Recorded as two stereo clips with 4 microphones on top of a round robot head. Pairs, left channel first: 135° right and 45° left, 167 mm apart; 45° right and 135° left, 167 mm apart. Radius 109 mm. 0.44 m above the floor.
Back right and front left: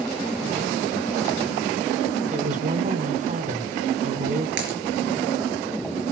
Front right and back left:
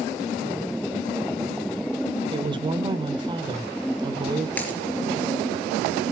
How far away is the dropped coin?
About 3 m.